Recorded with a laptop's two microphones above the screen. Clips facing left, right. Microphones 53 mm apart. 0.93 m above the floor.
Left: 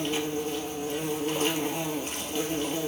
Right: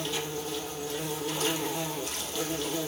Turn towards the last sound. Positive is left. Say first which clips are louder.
# left 4 dB
turn(degrees=40)  # may be behind; listen again after turning